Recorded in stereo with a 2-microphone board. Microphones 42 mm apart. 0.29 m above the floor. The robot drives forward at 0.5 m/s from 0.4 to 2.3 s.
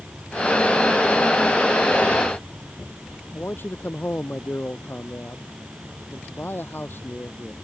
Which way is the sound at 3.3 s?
60° left (ahead or behind).